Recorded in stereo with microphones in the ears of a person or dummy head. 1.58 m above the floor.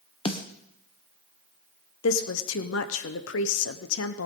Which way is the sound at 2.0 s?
70° left (ahead or behind).